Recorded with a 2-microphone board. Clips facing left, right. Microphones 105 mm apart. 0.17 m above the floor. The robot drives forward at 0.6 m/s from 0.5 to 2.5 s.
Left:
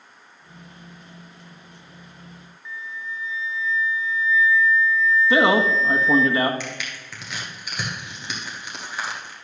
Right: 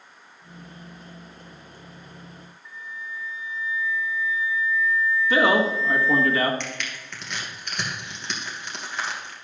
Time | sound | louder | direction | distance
2.6 | a flute | left 4 dB | 75° left (ahead or behind) | 0.6 m
5.3 | a man speaking | left 1 dB | 20° left (ahead or behind) | 1.4 m
6.6 | crushing | even | 5° left (ahead or behind) | 2.5 m